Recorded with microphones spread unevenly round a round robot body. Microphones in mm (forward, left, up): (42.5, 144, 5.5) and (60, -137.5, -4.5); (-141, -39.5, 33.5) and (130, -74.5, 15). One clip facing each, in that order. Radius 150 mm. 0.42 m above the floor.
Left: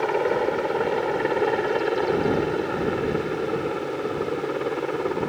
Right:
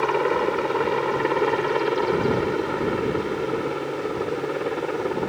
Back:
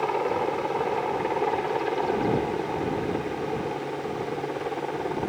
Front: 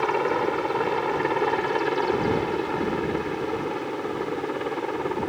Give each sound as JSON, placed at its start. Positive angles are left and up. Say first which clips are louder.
{"t": 0.0, "sound": "a helicopter", "louder": "even, front 2 dB", "azimuth_deg": -30}